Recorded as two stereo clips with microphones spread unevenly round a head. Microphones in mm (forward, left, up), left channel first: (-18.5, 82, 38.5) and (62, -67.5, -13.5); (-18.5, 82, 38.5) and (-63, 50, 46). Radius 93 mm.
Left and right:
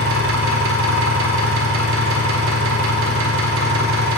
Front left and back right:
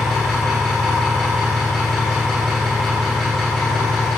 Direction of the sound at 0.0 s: 55° right.